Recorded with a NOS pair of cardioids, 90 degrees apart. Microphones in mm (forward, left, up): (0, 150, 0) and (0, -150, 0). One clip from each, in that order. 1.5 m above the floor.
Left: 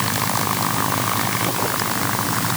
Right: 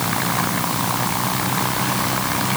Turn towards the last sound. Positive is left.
No sound to turn to.